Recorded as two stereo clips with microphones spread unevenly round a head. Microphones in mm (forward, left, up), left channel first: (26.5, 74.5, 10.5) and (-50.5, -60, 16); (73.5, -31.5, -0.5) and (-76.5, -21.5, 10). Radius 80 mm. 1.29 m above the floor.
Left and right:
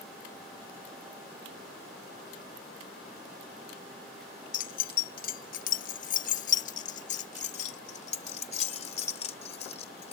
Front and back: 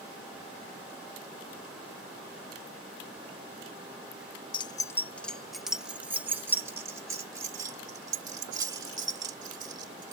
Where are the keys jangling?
50° left; by 10.1 s 110° left.